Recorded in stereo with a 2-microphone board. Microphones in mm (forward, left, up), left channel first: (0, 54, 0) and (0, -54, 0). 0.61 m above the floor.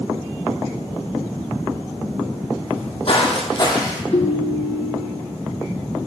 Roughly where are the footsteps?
Left.